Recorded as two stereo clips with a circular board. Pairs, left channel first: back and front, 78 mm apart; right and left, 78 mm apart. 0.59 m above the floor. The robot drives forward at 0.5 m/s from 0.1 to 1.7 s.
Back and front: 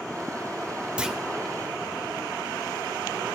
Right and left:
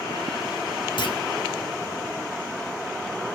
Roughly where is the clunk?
Right.